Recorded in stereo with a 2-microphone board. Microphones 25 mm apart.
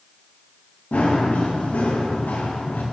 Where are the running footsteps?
65° left (ahead or behind), 5 m; by 2.8 s 80° left, 5 m.